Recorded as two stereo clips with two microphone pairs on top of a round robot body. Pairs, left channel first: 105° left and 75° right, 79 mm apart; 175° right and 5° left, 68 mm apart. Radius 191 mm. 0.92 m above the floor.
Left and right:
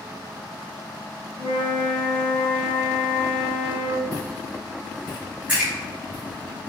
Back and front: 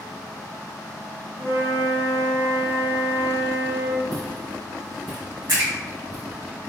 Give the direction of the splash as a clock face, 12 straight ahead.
12 o'clock.